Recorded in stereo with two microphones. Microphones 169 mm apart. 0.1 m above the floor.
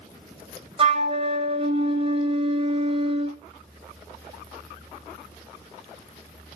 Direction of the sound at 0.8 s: 35° right (ahead or behind).